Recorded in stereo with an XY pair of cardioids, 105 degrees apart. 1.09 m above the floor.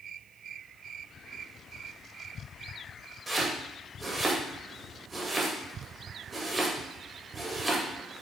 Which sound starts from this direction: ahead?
Chopping, at 3.3 s.